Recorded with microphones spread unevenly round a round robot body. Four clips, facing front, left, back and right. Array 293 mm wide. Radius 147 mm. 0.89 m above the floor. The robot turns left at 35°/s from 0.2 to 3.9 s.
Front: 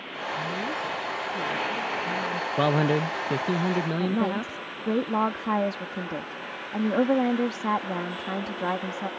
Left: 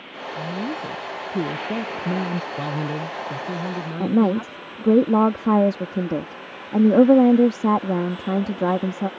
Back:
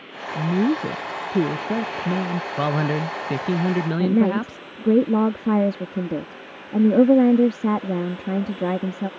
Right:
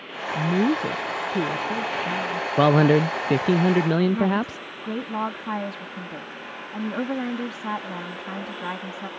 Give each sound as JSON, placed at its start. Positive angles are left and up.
{"t": 0.3, "sound": "a woman speaking", "azimuth_deg": -150}
{"t": 2.6, "sound": "a man speaking", "azimuth_deg": -95}
{"t": 4.0, "sound": "a woman speaking", "azimuth_deg": 130}